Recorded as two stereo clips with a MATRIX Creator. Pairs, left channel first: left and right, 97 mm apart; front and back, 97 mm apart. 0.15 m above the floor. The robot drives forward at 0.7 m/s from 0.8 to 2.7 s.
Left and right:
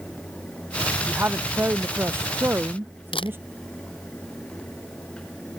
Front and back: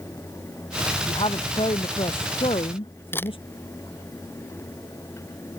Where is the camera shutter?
70° left.